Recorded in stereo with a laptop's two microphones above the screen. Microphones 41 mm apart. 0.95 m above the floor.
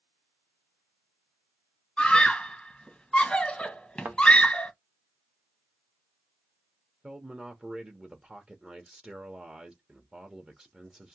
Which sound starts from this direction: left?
A scream, at 2.0 s.